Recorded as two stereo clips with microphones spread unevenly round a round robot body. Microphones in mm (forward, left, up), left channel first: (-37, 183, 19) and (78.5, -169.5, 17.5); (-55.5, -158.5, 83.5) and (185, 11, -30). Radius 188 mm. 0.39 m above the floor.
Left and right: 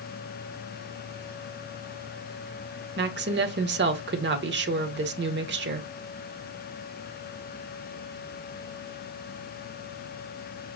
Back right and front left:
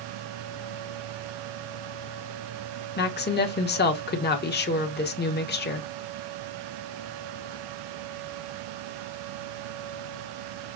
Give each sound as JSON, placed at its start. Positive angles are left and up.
{"t": 3.0, "sound": "a woman speaking", "azimuth_deg": -80, "distance_m": 1.0}